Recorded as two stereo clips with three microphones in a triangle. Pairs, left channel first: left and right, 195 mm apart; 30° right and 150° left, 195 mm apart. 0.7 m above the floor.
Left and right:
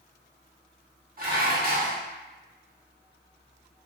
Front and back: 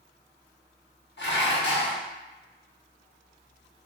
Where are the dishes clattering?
50° right, 0.8 m.